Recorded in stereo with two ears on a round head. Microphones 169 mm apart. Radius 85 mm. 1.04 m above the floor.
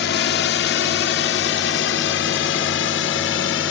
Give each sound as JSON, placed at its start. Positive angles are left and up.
{"t": 0.0, "sound": "a drone", "side_deg": 60}